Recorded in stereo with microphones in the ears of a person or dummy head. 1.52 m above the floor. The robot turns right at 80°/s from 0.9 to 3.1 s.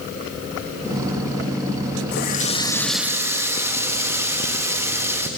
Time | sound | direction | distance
2.1 | a running tap | 110° left | 1.5 m